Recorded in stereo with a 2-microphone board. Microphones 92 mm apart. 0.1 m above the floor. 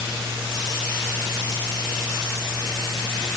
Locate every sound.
Only background noise.